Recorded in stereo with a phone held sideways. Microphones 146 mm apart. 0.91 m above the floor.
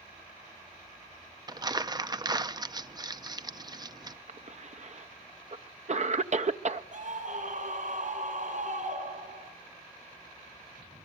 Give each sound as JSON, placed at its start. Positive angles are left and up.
{"t": 1.5, "sound": "crumpling", "side_deg": -30, "distance_m": 0.6}
{"t": 4.3, "sound": "a cough", "side_deg": -55, "distance_m": 0.6}
{"t": 6.9, "sound": "a scream", "side_deg": -60, "distance_m": 4.0}